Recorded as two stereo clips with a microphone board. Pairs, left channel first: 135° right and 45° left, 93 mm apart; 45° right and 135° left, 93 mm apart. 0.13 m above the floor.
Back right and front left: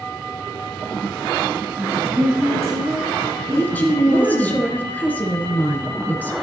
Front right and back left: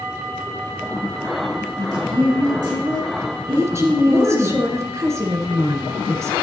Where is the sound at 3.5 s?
170° left, 1.4 m.